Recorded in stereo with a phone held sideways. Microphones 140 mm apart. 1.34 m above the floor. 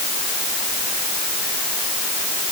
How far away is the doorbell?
No doorbell in this recording.